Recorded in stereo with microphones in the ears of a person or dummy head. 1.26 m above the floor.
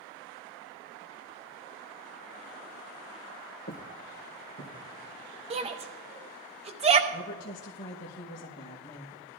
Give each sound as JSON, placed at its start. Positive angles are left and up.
{"t": 3.7, "sound": "footsteps", "side_deg": 50, "distance_m": 2.0}
{"t": 5.5, "sound": "a shout", "side_deg": -30, "distance_m": 1.1}
{"t": 7.1, "sound": "a woman speaking", "side_deg": 45, "distance_m": 1.1}